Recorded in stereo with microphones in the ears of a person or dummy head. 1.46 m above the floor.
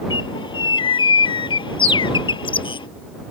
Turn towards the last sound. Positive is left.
turn(degrees=30)  # may be behind; listen again after turning